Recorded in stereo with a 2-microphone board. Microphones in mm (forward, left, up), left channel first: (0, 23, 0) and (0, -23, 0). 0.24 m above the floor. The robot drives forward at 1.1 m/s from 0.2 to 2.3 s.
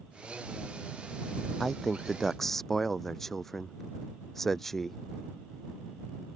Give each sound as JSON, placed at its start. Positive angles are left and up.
{"t": 1.6, "sound": "a man speaking", "side_deg": 10}